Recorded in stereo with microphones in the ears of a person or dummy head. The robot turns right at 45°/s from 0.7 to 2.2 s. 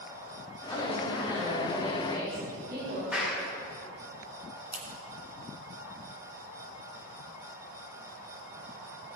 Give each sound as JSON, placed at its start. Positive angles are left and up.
{"t": 0.7, "sound": "a woman speaking", "azimuth_deg": 160, "distance_m": 4.0}
{"t": 3.1, "sound": "a clap", "side_deg": 0, "distance_m": 4.0}
{"t": 4.7, "sound": "scissors", "side_deg": -15, "distance_m": 2.5}